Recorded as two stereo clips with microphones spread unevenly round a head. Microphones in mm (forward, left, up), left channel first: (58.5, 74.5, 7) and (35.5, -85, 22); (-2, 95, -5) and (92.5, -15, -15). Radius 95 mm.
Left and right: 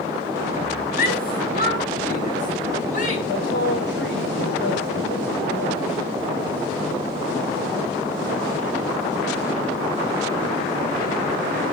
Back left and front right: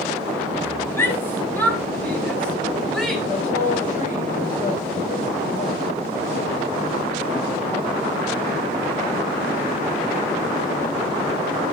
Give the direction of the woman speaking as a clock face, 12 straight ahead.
8 o'clock.